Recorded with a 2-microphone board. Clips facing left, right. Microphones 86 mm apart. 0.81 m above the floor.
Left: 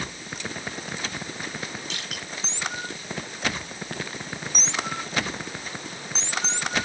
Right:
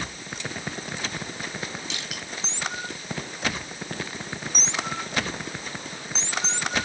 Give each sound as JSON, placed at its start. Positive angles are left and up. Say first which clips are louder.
{"t": 1.9, "sound": "crushing", "louder": "even", "side_deg": 40, "distance_m": 9.0}